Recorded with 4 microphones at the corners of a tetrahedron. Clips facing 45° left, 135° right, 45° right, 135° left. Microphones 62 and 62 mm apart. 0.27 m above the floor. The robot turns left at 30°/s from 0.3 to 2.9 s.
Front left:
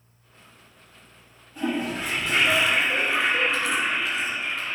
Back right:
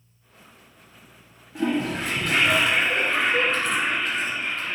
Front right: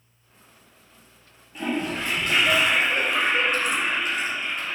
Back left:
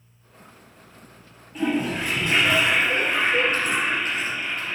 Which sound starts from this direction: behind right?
A toilet flushing, at 1.6 s.